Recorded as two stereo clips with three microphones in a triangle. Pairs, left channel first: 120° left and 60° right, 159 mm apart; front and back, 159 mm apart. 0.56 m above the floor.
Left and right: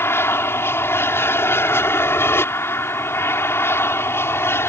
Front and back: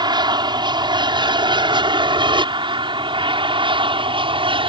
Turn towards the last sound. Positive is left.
turn(degrees=180)